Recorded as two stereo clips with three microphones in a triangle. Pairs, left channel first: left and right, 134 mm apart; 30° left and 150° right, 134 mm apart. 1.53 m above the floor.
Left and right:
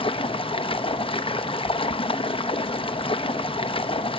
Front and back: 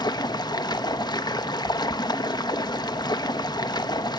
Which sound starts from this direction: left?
Running water, at 0.0 s.